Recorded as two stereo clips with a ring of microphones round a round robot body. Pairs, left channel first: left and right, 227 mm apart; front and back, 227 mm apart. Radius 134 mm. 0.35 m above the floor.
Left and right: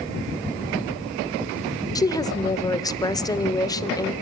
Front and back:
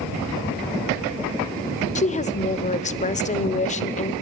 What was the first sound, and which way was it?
A woman speaking, 25° left.